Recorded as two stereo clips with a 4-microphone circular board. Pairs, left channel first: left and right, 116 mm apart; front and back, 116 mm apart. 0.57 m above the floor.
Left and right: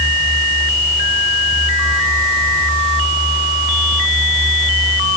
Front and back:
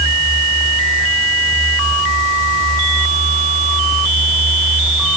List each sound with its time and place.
Only background noise.